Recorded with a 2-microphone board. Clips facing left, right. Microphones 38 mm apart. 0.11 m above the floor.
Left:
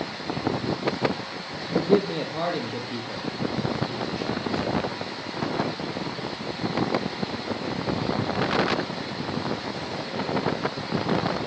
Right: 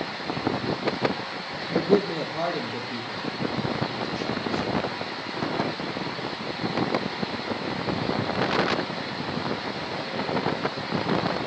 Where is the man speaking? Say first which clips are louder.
Even; 40° left (ahead or behind), 3 m; by 5.4 s 35° left (ahead or behind), 5.5 m.